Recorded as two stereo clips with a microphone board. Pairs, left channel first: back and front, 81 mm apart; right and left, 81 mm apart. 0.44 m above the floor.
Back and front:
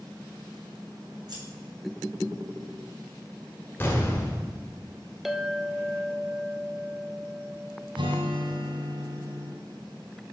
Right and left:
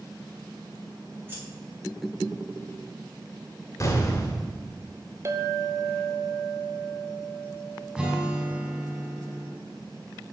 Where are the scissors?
30° left, 3.5 m.